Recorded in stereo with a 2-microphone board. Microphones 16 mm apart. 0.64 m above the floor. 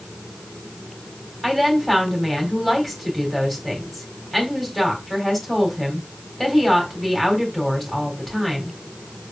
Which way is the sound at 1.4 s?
5° left (ahead or behind).